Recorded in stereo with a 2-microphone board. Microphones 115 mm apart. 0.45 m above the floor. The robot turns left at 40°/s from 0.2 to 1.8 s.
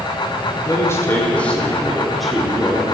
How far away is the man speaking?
About 1.4 m.